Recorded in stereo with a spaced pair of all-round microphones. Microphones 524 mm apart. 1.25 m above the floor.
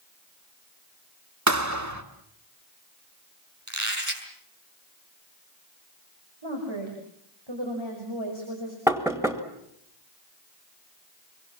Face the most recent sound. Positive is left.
turn(degrees=-5)  # may be behind; listen again after turning